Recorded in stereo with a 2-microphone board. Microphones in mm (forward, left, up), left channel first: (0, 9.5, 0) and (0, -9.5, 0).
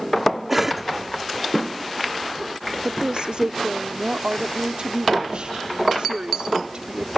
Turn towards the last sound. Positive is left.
turn(degrees=-60)  # may be behind; listen again after turning